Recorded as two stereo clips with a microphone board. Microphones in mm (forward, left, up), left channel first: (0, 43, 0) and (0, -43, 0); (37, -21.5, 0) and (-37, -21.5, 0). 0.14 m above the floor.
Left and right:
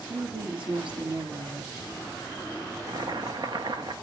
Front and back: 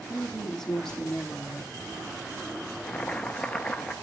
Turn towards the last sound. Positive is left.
turn(degrees=-75)